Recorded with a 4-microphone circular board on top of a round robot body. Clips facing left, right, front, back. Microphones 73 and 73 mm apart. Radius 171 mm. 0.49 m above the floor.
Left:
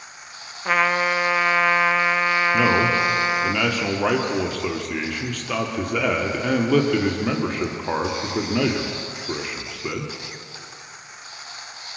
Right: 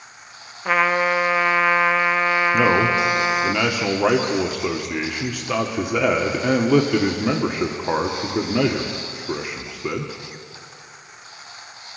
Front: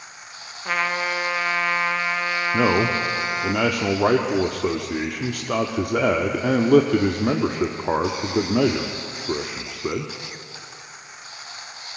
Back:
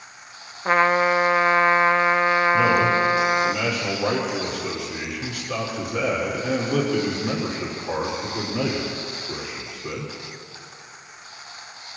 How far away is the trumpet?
About 0.8 m.